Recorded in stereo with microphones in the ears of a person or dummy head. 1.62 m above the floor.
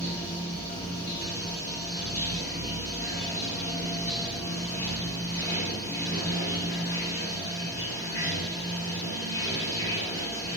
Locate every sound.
0.0 s running water: 15° left (ahead or behind), 1.1 m